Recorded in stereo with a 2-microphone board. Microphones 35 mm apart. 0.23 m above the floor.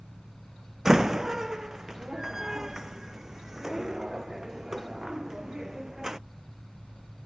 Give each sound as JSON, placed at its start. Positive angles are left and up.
{"t": 0.8, "sound": "a door slam", "side_deg": -15}